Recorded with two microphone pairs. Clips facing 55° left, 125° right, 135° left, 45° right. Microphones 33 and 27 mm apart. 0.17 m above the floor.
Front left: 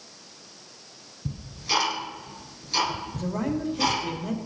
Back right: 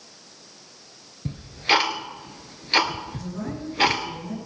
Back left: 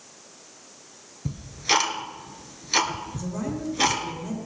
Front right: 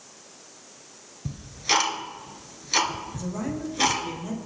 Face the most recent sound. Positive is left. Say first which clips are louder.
# front left 4 dB, even
turn(degrees=40)